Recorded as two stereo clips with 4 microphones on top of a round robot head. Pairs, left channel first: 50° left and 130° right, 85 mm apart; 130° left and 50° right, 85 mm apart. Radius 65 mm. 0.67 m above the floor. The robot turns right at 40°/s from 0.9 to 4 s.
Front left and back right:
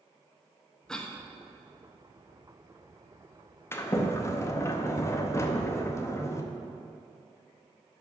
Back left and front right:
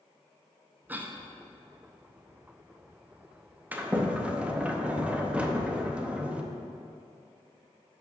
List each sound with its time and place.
0.9 s a cough: 20° right, 0.9 m; by 1.2 s 10° right, 0.9 m
3.7 s a sliding door: 5° left, 0.8 m; by 6.4 s 15° left, 0.8 m